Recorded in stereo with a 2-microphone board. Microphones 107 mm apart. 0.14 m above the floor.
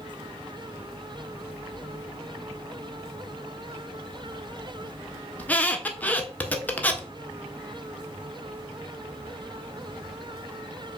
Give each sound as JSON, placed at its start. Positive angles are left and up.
{"t": 5.4, "sound": "a squeak", "side_deg": 15, "distance_m": 0.5}